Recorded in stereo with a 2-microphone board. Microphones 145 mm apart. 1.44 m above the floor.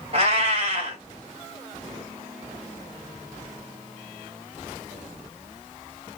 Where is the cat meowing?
45° right (ahead or behind), 1.6 m.